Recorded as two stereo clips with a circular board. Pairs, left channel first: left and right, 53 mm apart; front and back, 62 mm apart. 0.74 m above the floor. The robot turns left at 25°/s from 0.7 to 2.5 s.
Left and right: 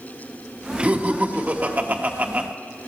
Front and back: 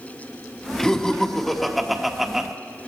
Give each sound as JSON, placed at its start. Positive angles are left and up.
{"t": 0.8, "sound": "laughter", "azimuth_deg": -65, "distance_m": 1.1}